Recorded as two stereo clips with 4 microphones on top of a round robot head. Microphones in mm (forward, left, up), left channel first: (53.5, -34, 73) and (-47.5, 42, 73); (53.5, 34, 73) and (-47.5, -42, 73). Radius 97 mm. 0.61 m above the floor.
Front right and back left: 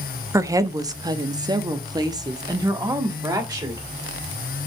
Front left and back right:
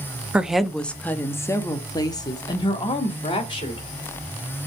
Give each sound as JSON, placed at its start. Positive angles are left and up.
{"t": 0.3, "sound": "a woman speaking", "azimuth_deg": 150, "distance_m": 0.9}